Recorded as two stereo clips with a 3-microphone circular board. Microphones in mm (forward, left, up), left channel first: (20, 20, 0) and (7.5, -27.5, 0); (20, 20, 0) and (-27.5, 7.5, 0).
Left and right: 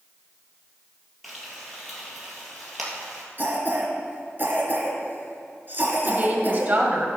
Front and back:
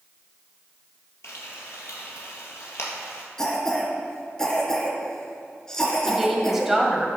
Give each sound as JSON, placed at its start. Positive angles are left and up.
{"t": 1.2, "sound": "frying", "azimuth_deg": -15, "distance_m": 3.0}
{"t": 3.4, "sound": "a cough", "azimuth_deg": -60, "distance_m": 3.5}
{"t": 6.0, "sound": "a woman speaking", "azimuth_deg": -80, "distance_m": 1.9}